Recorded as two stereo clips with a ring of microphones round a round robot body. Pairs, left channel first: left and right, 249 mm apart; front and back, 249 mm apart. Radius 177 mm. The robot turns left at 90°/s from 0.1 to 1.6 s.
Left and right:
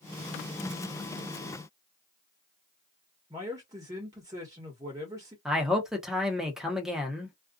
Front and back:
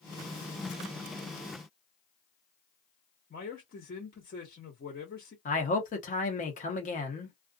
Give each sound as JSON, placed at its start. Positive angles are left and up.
{"t": 3.3, "sound": "a man speaking", "azimuth_deg": -20, "distance_m": 1.2}
{"t": 5.5, "sound": "a man speaking", "azimuth_deg": -5, "distance_m": 0.9}